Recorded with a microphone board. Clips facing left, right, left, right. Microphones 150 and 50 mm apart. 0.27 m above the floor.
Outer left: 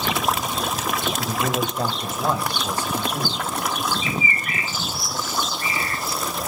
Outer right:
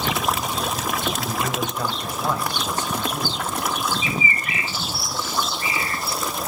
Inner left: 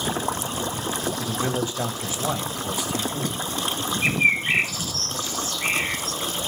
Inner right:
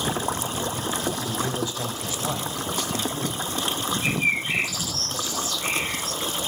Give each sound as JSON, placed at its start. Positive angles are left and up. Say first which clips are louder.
{"t": 1.2, "sound": "a man speaking", "louder": "outer left 2 dB, inner left 2 dB", "side_deg": 40, "distance_m": 1.5}
{"t": 4.0, "sound": "a bird", "louder": "even, inner left 5 dB", "side_deg": 45, "distance_m": 1.5}